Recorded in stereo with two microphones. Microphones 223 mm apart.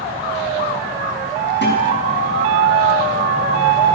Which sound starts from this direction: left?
A guitar, at 1.6 s.